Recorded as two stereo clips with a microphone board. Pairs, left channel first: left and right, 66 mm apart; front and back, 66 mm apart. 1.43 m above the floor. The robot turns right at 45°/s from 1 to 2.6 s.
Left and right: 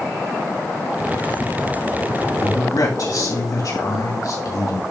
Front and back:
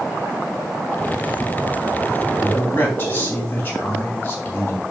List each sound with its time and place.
2.4 s a man speaking: 55° left, 3.5 m; by 4.8 s 65° left, 3.5 m